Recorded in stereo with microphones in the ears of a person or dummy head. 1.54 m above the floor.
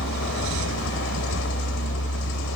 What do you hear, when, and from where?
0.0 s a vehicle: 70° left (ahead or behind)